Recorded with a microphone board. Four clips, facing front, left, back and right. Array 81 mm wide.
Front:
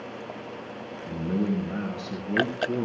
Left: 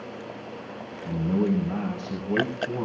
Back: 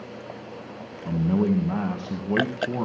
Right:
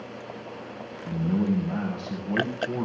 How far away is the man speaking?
About 2 m.